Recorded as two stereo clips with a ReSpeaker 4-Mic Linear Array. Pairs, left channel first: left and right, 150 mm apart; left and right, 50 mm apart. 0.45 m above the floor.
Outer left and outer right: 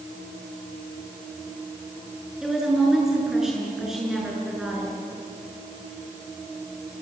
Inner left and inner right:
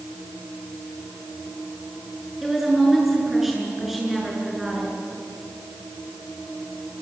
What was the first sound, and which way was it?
A woman speaking, 5° right (ahead or behind).